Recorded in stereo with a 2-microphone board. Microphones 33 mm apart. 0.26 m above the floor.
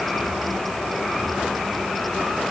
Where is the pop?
No pop in this recording.